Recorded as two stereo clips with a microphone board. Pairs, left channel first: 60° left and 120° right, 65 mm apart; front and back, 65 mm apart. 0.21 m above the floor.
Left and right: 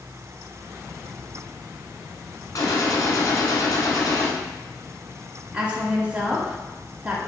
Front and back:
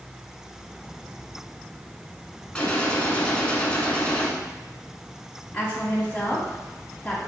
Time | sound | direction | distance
2.5 | a gunshot | 70° left | 1.2 m
5.5 | a woman speaking | 60° right | 1.4 m